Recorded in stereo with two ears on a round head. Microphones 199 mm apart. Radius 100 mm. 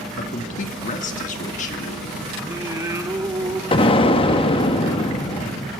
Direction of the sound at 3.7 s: 25° left (ahead or behind).